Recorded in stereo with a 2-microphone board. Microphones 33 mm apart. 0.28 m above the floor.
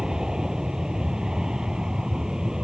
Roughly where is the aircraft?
Centre.